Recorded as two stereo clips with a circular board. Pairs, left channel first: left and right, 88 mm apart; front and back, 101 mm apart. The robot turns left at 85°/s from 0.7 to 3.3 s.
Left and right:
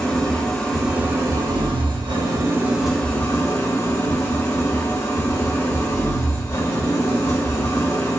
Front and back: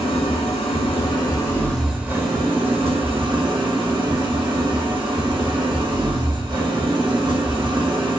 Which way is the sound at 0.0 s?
5° left.